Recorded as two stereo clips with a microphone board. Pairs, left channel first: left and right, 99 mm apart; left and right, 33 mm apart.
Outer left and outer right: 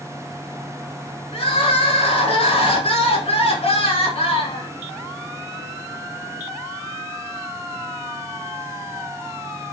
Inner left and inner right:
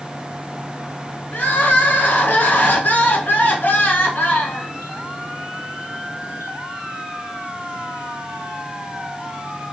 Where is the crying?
75° left (ahead or behind), 0.8 m.